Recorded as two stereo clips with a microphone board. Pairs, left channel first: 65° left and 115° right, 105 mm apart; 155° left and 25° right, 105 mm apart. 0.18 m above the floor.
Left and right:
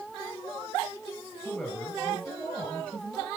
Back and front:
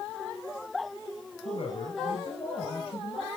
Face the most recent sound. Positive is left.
turn(degrees=145)